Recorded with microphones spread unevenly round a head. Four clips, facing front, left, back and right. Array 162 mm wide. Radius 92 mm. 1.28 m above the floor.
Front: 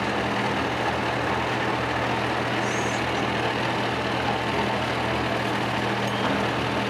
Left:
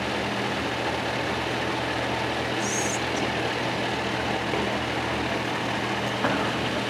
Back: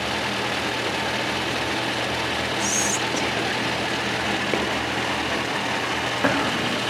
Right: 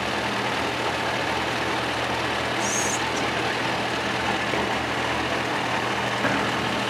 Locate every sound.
2.6 s whispering: 170° right, 2 m